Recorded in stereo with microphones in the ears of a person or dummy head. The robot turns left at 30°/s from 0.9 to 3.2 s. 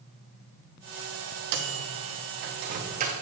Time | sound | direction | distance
1.5 | a microwave | 65° right (ahead or behind) | 1.1 m